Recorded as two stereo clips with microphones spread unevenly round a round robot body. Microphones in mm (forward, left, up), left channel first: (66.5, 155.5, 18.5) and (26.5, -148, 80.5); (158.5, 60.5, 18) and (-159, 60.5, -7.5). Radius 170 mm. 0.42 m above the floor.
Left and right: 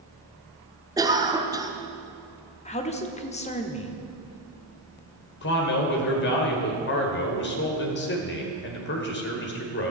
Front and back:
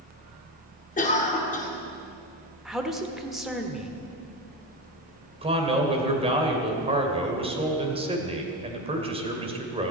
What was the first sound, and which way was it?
A cough, 10° right.